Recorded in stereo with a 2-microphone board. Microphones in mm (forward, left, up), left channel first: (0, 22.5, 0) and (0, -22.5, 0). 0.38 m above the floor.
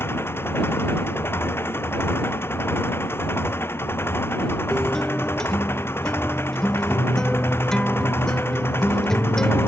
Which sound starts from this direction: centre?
A guitar, at 4.7 s.